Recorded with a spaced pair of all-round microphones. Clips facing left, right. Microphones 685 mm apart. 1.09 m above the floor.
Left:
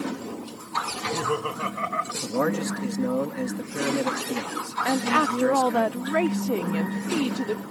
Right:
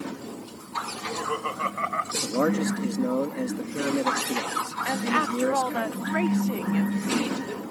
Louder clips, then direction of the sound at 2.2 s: Right 1 dB; 25° left (ahead or behind).